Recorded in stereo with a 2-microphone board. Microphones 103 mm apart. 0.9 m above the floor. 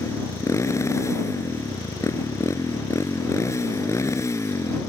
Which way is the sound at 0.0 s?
30° left (ahead or behind).